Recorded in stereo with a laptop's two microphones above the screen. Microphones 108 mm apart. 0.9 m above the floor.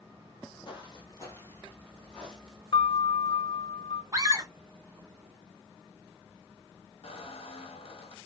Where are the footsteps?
45° left (ahead or behind), 1.5 m; by 2.6 s 5° right (ahead or behind), 1.9 m.